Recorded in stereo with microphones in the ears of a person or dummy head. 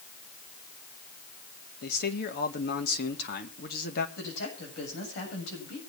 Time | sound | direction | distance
1.8 | a man speaking | 65° left (ahead or behind) | 2 m
4.2 | a woman speaking | 65° left (ahead or behind) | 8.5 m